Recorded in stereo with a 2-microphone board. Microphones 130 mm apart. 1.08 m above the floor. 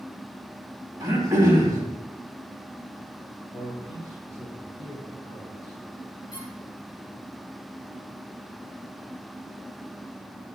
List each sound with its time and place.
1.0 s throat clearing: 25° right (ahead or behind), 2.5 m
3.5 s a man speaking: 55° left (ahead or behind), 4 m
6.3 s a squeak: 40° left (ahead or behind), 3.5 m